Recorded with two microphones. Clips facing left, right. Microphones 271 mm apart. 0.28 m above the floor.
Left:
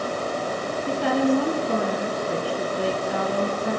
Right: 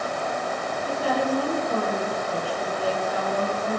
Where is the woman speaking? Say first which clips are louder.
Left 5 dB; 70° left (ahead or behind), 6 m.